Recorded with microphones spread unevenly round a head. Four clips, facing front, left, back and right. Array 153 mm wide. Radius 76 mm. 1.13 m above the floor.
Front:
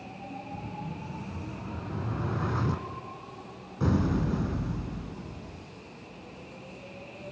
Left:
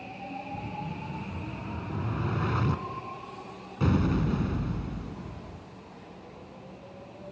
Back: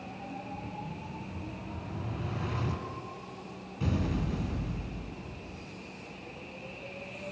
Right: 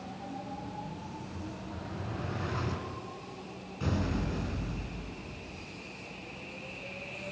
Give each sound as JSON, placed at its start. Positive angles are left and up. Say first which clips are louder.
{"t": 0.5, "sound": "an explosion", "louder": "left 4 dB, front 2 dB", "azimuth_deg": 50, "distance_m": 2.5}